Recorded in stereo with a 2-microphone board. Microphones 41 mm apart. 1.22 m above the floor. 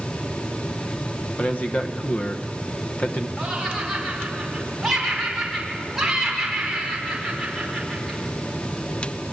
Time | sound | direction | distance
1.4 | a man speaking | 40° left (ahead or behind) | 1.1 m
3.4 | laughter | 5° right (ahead or behind) | 4.5 m